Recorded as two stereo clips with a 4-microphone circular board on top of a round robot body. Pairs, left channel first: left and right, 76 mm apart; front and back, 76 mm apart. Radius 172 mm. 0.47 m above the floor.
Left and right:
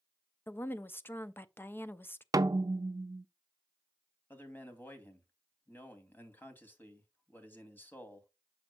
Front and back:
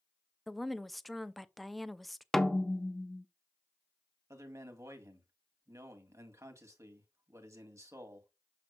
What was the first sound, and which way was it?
A woman speaking, 90° left.